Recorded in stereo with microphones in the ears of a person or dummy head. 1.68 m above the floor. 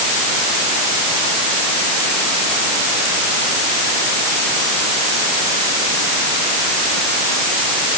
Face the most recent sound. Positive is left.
No sound to turn to.